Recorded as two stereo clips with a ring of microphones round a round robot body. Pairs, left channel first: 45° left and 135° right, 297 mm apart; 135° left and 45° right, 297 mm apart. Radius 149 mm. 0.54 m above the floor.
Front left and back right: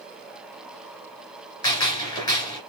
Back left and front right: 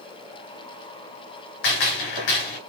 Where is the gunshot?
120° left, 2.5 m.